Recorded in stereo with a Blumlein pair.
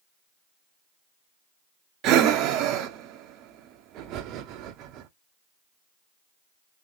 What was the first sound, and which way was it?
Breathing, 35° right.